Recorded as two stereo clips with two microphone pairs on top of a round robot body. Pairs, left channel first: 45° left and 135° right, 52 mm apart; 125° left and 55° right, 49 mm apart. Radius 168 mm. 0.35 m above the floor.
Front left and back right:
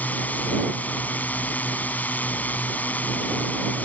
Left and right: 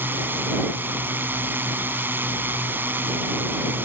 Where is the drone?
10° right.